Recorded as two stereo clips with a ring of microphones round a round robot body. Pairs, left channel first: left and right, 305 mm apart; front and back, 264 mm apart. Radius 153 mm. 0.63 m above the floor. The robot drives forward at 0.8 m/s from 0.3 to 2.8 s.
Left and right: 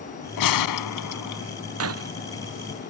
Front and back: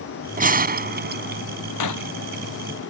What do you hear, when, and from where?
0.4 s a gunshot: 120° left; by 1.4 s 125° left
1.8 s breaking glass: 40° right; by 2.1 s 45° right